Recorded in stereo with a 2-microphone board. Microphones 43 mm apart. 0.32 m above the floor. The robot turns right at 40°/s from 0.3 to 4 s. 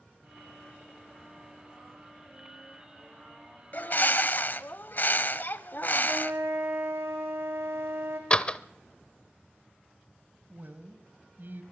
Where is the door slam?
25° left (ahead or behind), 0.8 m.